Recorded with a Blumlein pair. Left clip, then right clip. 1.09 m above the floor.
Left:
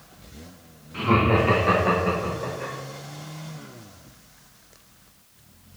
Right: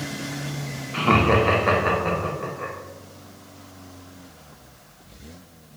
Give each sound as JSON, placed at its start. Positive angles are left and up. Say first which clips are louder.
{"t": 0.9, "sound": "laughter", "louder": "right 2 dB", "azimuth_deg": -50, "distance_m": 0.7}